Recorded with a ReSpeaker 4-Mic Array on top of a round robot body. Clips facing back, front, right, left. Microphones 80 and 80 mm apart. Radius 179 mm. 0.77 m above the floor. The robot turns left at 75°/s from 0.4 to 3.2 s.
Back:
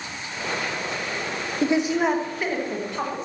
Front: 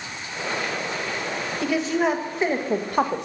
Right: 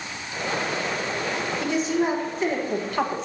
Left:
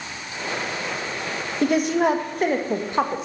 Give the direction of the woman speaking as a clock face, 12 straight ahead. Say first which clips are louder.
Back 2 dB, left 5 dB; 8 o'clock.